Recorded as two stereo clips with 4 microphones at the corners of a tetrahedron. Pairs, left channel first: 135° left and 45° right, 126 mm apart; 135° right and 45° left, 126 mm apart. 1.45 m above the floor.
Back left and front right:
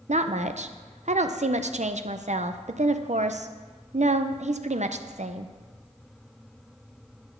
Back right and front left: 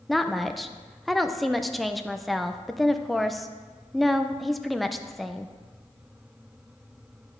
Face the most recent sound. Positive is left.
turn(degrees=-45)